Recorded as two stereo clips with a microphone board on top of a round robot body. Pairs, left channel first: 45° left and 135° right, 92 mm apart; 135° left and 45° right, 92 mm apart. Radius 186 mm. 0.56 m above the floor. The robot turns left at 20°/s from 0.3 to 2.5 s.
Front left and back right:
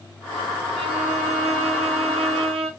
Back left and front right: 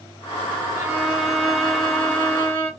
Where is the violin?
120° right, 0.7 m; by 2.7 s 155° right, 0.7 m.